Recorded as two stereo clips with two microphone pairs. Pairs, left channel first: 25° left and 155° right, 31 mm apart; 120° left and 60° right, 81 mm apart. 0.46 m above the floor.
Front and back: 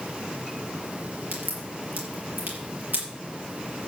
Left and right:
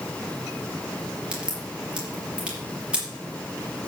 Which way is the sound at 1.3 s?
140° right.